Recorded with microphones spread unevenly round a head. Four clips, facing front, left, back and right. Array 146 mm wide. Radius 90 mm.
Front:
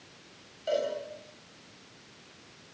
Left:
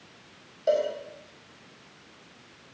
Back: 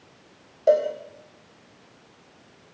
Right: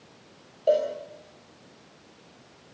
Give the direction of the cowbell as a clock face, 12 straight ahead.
5 o'clock.